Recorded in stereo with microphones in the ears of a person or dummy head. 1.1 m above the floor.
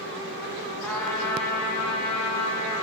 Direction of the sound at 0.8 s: 5° left (ahead or behind).